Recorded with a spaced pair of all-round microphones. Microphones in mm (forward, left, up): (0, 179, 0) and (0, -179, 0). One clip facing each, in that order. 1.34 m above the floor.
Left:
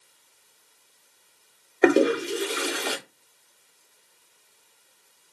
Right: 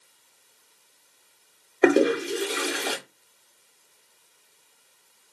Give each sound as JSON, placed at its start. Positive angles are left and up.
{"t": 1.8, "sound": "a toilet flushing", "side_deg": 0, "distance_m": 0.6}